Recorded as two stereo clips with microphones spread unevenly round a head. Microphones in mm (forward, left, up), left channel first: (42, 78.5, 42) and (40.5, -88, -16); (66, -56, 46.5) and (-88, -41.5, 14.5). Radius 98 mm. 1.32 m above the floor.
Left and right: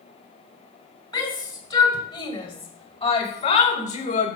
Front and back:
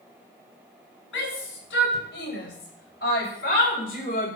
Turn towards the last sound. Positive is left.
turn(degrees=45)